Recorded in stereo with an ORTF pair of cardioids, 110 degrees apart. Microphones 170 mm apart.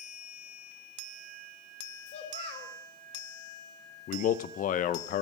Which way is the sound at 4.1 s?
55° left.